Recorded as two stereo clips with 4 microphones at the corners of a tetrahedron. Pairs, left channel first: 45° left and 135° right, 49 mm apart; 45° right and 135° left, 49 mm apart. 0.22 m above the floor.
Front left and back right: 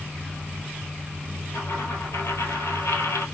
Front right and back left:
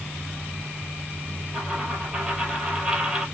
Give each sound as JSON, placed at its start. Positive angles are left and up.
{"t": 1.5, "sound": "a dropped coin", "azimuth_deg": 65, "distance_m": 1.6}